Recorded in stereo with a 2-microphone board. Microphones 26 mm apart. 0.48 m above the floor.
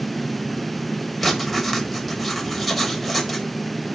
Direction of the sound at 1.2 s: 5° left (ahead or behind).